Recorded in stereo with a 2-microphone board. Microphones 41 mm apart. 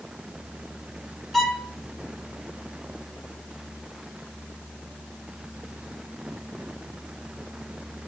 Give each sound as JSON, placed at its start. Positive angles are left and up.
{"t": 1.3, "sound": "a violin", "side_deg": 5, "distance_m": 1.1}